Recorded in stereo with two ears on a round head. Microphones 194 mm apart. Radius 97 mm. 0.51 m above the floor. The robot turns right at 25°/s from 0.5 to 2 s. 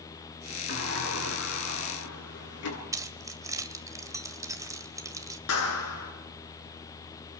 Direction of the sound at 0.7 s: 50° left.